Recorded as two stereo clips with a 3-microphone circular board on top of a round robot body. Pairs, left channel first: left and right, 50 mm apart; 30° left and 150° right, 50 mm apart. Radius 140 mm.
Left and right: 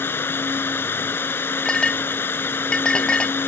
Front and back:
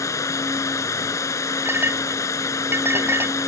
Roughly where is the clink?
Behind.